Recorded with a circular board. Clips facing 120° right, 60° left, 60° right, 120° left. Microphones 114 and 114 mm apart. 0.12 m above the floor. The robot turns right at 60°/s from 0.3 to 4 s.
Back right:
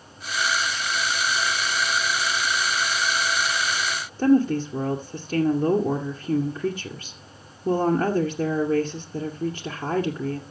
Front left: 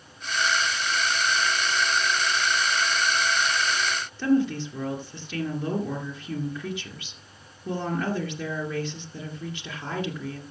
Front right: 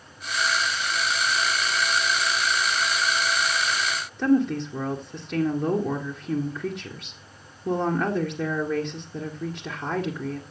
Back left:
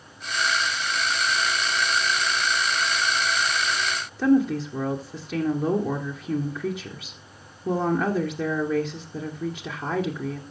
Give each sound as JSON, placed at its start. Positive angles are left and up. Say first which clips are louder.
{"t": 4.2, "sound": "a woman speaking", "louder": "back right 4 dB, back left 1 dB", "azimuth_deg": -155, "distance_m": 1.9}